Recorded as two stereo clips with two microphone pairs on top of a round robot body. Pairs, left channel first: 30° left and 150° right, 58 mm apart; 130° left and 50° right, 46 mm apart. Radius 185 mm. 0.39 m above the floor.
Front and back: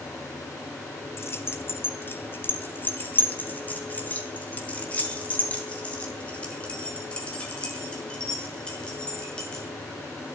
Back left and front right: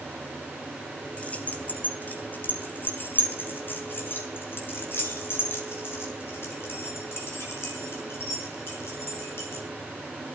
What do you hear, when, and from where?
1.2 s keys jangling: 70° left, 2 m; by 9.6 s 105° left, 6.5 m